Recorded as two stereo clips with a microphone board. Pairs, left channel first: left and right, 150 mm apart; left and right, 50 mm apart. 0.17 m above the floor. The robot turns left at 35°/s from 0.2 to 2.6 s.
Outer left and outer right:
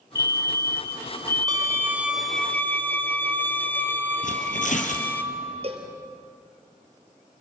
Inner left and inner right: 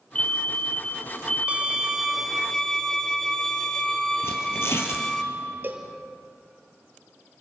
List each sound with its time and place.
0.1 s a fire alarm: 25° left (ahead or behind), 2 m; by 2.2 s 5° left (ahead or behind), 2 m
1.5 s a violin: 155° right, 0.8 m; by 5.2 s 165° left, 0.8 m
4.2 s tearing paper: 60° left (ahead or behind), 3 m
5.6 s a cowbell: 40° right (ahead or behind), 1.9 m